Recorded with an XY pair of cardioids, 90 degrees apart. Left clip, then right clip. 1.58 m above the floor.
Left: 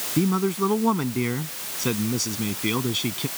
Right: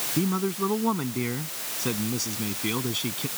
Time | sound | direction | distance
0.2 | a man speaking | 30° left | ?